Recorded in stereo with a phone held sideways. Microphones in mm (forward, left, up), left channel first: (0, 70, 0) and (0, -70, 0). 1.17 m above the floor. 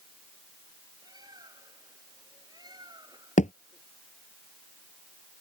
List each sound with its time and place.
1.0 s a bird: 25° right (ahead or behind)
3.4 s a thud: 60° left (ahead or behind)